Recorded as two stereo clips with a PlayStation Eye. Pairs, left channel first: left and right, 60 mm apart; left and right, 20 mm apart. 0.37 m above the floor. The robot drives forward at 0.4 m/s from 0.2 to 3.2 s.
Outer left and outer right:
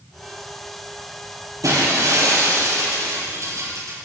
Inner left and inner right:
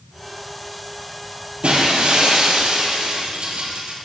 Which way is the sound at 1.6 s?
70° right (ahead or behind).